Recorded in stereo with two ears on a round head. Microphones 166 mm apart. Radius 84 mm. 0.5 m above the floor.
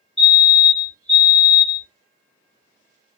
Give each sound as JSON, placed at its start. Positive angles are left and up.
{"t": 0.2, "sound": "a fire alarm", "side_deg": 0, "distance_m": 3.0}